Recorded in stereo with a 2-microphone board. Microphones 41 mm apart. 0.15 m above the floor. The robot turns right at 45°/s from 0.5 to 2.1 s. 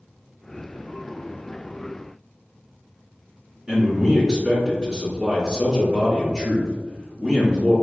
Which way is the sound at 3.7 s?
20° right (ahead or behind).